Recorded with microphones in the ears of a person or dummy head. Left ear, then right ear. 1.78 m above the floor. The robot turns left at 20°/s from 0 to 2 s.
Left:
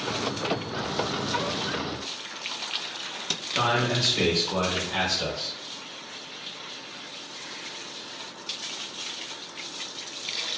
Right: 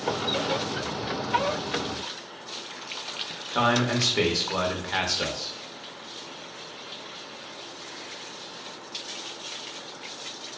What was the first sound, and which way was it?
A man speaking, 40° right (ahead or behind).